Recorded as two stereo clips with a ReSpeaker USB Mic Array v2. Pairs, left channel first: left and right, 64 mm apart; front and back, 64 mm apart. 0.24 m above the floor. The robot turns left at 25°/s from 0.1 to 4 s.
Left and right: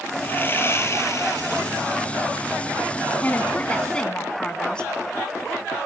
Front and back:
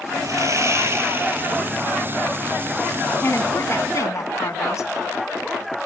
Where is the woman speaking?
40° left, 2.5 m; by 4.9 s 20° left, 2.5 m.